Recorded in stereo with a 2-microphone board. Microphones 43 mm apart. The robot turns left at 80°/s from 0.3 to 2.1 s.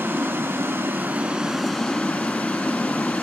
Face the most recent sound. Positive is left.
turn(degrees=145)